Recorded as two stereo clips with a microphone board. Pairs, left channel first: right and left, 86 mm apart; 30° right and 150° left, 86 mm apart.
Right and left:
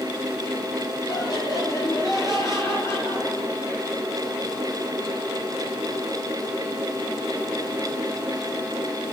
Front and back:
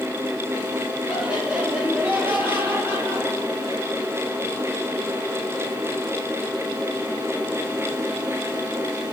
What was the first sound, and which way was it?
Laughter, 130° right.